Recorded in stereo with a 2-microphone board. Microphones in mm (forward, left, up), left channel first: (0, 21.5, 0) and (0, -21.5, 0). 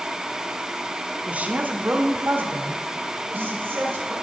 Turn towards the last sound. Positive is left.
turn(degrees=-60)  # may be behind; listen again after turning